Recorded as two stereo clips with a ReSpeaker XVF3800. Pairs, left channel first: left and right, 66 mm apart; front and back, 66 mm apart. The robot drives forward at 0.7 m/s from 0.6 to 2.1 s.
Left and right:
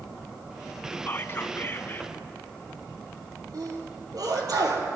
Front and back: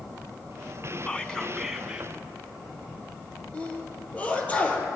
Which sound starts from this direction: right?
A sneeze, at 3.5 s.